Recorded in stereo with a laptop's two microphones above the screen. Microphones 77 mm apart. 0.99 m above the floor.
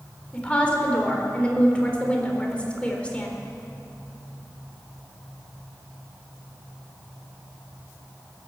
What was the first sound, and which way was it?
A woman speaking, 15° left (ahead or behind).